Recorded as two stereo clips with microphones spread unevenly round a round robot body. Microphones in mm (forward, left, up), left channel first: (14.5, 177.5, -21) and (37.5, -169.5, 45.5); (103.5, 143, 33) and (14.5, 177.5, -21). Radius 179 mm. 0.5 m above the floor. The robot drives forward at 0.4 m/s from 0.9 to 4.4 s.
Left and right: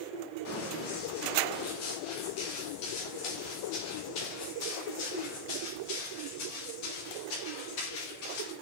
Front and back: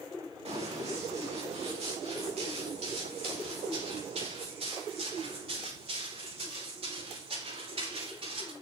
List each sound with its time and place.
0.5 s running footsteps: 150° left, 9.5 m; by 8.5 s 140° left, 14 m